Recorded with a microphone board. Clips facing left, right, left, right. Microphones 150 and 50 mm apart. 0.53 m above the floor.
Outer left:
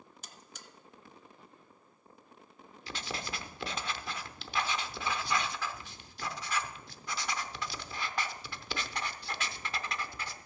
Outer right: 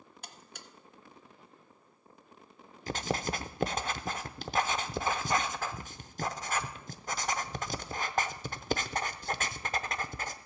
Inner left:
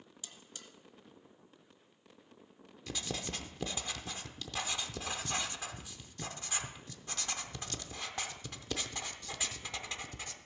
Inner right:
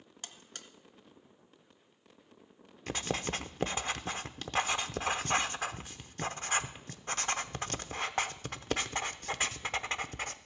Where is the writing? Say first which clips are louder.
Outer right 8 dB, inner right 6 dB; 45° right (ahead or behind), 0.7 m.